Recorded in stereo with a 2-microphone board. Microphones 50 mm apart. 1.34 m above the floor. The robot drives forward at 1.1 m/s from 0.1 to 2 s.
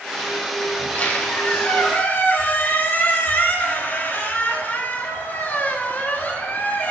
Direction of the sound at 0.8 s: 30° left (ahead or behind).